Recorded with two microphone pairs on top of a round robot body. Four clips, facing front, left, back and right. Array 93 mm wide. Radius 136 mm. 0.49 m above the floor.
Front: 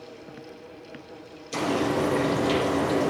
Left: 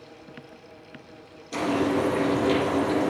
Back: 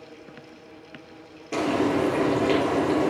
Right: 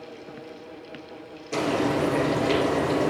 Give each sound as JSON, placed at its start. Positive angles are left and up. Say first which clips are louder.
{"t": 1.5, "sound": "frying", "louder": "even, back 2 dB", "azimuth_deg": -160, "distance_m": 4.5}